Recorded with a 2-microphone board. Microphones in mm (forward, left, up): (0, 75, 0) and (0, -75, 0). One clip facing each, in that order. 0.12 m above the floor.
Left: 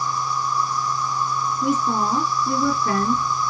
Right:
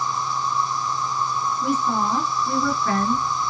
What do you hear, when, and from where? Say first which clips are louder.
0.0 s an insect: even; 25° right (ahead or behind), 1.2 m
1.6 s a woman speaking: left 2 dB; 15° left (ahead or behind), 1.5 m